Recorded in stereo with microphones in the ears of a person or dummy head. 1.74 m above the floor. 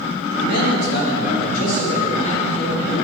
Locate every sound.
0.4 s a man speaking: 60° left (ahead or behind), 3.5 m; by 3.0 s 25° left (ahead or behind), 4.5 m